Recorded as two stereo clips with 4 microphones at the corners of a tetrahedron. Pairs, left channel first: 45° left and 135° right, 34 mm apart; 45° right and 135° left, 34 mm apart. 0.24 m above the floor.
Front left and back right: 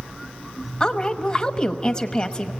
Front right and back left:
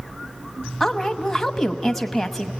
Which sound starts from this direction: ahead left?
A woman speaking, at 0.8 s.